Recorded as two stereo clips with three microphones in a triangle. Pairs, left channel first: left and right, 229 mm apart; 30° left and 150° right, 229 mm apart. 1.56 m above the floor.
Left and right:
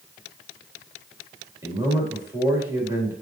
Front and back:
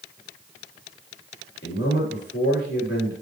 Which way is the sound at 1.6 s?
10° right.